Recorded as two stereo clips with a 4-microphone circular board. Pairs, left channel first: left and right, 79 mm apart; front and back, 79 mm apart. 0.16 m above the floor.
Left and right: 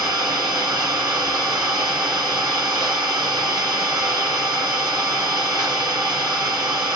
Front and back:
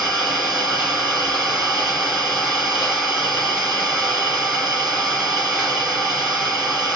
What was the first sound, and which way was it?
An engine running, 95° right.